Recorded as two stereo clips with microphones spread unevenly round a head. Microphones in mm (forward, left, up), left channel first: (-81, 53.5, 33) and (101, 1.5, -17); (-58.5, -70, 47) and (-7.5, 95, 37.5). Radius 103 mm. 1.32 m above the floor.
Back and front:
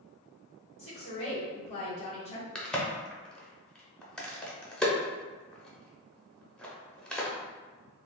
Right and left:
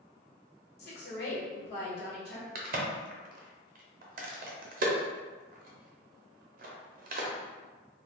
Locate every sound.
0.8 s a woman speaking: 135° right, 1.4 m
2.5 s a crack: 70° left, 0.7 m